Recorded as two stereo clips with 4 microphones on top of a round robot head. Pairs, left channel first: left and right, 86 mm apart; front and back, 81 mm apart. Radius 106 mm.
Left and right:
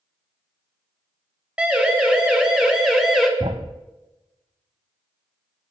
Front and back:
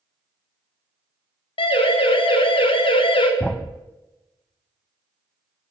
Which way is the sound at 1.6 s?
10° right.